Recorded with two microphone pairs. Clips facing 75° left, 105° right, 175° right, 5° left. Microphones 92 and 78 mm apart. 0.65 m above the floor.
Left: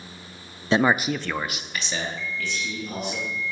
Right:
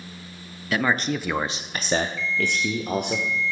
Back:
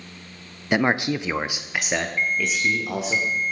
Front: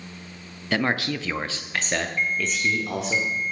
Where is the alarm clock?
110° right, 1.6 m.